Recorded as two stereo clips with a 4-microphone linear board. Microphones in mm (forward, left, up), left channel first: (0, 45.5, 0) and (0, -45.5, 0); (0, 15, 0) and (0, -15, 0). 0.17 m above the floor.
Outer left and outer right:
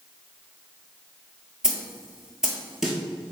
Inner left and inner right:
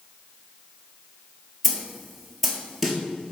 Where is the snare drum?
5° right (ahead or behind), 0.8 m.